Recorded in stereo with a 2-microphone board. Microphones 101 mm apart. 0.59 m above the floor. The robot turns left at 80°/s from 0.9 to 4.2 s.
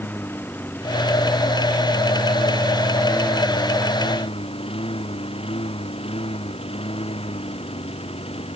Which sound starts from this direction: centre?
A lawn mower, at 0.0 s.